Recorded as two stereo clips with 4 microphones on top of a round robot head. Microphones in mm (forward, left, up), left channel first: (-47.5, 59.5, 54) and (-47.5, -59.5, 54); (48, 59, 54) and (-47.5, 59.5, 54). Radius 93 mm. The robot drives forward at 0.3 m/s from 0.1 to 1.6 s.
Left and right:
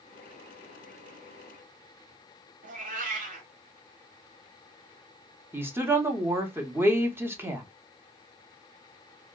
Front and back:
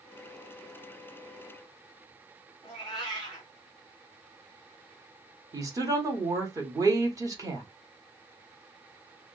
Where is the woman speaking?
150° right, 0.8 m.